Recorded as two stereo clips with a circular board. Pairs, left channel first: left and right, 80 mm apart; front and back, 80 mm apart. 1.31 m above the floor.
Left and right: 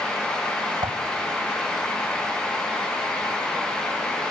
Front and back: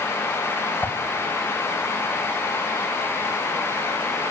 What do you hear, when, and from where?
0.8 s a whoosh: 70° right, 1.9 m